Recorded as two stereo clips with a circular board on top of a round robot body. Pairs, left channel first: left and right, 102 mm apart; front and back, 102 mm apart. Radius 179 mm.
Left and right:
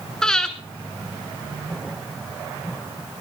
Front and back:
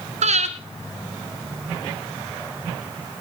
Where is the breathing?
175° left, 1.0 m.